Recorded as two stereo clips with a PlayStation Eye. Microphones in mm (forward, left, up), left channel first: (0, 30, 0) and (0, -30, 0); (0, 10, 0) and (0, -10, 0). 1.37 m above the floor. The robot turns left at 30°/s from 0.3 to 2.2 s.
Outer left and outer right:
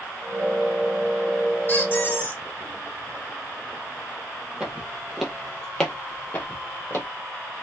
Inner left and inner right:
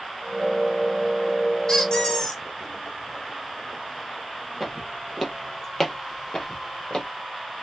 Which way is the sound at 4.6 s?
15° right (ahead or behind).